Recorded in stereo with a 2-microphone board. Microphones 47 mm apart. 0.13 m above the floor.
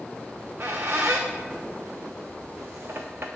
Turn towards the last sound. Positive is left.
turn(degrees=-50)  # may be behind; listen again after turning